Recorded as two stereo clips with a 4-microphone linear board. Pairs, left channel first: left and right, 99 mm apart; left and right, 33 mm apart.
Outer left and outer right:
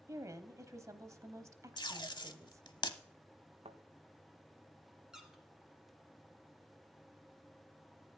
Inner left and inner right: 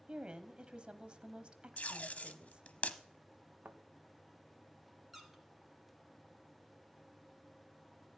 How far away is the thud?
About 1.2 m.